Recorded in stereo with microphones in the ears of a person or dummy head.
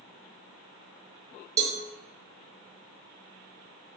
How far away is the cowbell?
About 1.2 m.